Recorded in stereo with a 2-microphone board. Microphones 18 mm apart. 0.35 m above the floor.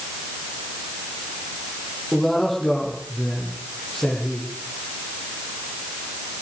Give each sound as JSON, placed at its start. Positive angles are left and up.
{"t": 2.1, "sound": "a man speaking", "side_deg": 0, "distance_m": 9.5}